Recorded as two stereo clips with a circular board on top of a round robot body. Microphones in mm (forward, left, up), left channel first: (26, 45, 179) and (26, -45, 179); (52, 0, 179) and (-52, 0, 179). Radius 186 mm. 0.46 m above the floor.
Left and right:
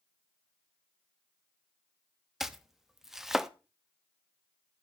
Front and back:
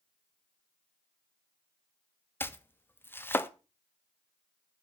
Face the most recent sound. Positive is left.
turn(degrees=-10)